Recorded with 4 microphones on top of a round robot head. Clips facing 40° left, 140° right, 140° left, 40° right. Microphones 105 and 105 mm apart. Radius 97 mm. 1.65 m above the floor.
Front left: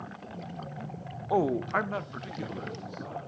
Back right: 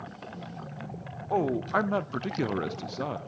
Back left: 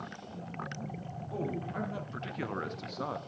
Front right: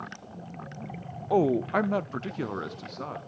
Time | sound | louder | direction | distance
1.3 | a man speaking | even, front right 13 dB | 40° right | 0.7 m